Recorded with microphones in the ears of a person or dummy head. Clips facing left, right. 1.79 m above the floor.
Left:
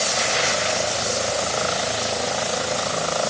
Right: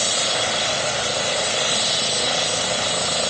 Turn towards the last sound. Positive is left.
No sound to turn to.